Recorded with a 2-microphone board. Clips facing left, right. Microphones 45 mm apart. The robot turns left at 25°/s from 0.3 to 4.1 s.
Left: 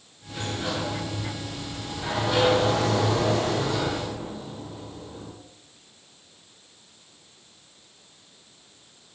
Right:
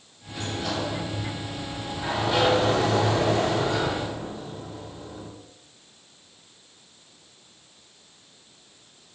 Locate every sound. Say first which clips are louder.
0.3 s a sliding door: even; 40° left, 1.9 m; by 5.3 s 55° right, 1.9 m